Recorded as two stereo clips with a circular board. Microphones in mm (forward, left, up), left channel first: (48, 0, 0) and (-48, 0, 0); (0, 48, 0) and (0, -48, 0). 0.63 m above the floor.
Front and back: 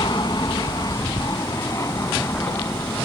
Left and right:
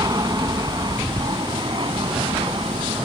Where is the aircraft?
45° right; by 3.1 s 65° right.